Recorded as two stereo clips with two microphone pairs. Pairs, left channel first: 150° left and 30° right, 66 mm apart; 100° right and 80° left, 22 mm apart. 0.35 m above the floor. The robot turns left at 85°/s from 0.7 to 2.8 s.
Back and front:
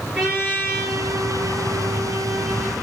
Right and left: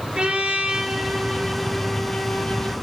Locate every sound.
0.1 s a trumpet: 55° left, 8.5 m; by 2.7 s 120° right, 8.5 m